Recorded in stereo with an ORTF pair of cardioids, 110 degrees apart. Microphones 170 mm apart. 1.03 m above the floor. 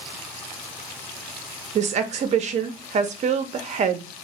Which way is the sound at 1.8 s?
45° right.